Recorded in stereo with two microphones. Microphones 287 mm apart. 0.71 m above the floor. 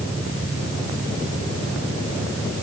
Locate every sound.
Only background noise.